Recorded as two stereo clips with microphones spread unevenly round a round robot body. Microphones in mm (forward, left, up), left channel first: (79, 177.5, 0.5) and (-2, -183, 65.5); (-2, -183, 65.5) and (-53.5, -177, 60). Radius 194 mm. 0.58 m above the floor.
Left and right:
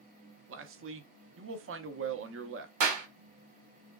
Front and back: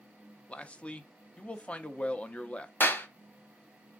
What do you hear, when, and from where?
0.5 s a man speaking: 65° right, 0.6 m
2.8 s a clap: 60° right, 1.1 m